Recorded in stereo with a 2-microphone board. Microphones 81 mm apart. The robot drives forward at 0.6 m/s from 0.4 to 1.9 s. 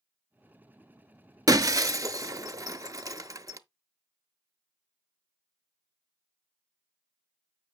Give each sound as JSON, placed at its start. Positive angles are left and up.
{"t": 1.5, "sound": "breaking glass", "side_deg": -50, "distance_m": 0.5}